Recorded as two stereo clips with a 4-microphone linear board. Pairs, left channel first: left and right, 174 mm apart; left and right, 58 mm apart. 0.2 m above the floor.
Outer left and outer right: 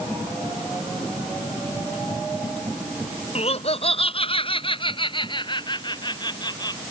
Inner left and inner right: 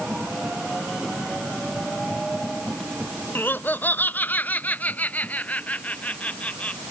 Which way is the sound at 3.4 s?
35° left (ahead or behind).